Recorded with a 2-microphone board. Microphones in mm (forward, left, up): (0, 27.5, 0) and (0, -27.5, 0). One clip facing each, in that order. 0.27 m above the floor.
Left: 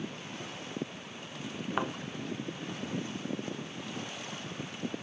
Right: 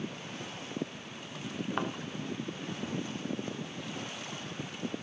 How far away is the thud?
About 1.3 m.